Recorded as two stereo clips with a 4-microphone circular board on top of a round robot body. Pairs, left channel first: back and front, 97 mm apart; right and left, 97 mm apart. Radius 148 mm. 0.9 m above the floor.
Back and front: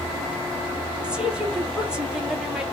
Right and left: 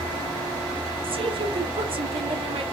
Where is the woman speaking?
80° left, 1.4 m.